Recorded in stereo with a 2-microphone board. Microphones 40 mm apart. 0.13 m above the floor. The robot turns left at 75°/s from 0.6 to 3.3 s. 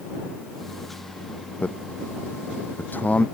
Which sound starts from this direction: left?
A man speaking, at 1.6 s.